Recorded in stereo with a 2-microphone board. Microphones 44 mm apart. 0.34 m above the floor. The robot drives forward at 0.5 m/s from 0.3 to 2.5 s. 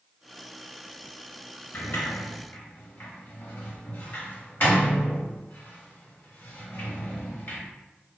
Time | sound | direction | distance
1.7 | a sliding door | 55° left (ahead or behind) | 0.8 m